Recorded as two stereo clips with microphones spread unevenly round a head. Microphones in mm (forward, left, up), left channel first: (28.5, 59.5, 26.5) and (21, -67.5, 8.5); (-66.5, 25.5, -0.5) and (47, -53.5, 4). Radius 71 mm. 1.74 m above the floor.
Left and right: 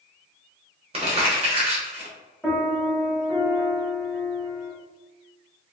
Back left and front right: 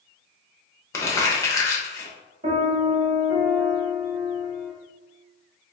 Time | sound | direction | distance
0.9 | crumpling | 145° right | 0.7 m
2.4 | a piano | straight ahead | 1.0 m